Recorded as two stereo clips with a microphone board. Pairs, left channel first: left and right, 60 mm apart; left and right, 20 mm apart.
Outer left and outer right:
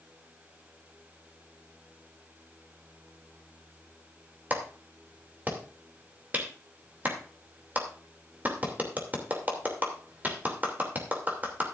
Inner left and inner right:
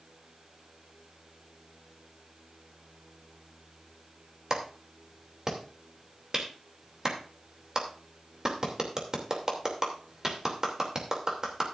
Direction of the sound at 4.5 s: 30° right (ahead or behind).